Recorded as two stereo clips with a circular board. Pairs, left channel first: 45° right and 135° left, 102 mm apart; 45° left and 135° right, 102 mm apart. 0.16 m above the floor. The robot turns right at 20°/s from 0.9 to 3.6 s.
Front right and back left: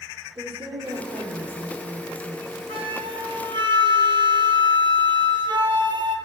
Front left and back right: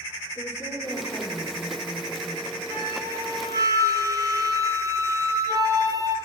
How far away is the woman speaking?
About 2.5 m.